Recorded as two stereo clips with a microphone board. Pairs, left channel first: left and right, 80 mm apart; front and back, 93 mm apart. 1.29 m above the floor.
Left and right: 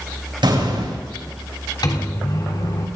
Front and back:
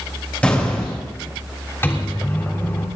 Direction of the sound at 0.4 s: 75° right.